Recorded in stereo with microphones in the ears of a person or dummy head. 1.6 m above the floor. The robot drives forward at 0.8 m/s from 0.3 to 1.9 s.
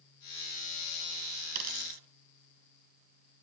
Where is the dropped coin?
50° right (ahead or behind), 3 m.